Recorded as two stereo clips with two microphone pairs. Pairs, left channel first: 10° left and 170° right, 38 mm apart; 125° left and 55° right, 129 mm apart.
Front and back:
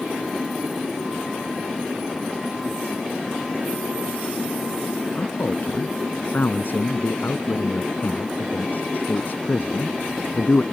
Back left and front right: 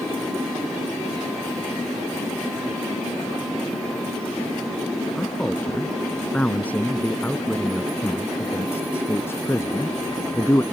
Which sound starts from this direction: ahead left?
A man speaking, at 5.2 s.